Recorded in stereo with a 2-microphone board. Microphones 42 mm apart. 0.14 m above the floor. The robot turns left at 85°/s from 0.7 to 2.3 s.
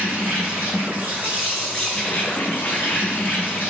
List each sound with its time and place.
0.0 s an insect: 95° right, 3 m; by 3.7 s 130° left, 3 m